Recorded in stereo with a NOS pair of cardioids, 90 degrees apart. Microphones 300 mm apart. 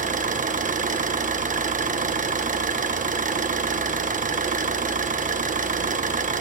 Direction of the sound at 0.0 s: 25° right.